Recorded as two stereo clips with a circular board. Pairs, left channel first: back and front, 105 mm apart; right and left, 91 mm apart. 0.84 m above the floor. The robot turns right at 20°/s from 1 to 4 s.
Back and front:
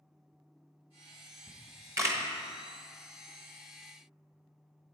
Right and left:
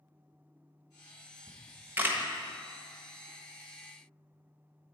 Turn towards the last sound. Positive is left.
turn(degrees=80)